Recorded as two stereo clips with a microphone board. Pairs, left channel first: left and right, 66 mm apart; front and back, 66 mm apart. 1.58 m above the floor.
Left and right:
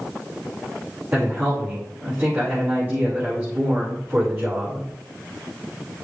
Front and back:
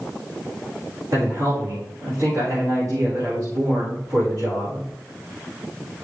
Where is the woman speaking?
150° right, 5 m.